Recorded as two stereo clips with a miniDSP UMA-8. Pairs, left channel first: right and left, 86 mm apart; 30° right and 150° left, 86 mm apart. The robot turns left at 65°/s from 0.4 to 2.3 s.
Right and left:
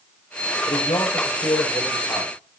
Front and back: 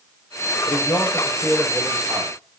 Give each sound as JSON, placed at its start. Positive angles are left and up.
{"t": 0.7, "sound": "a man speaking", "azimuth_deg": -60, "distance_m": 6.5}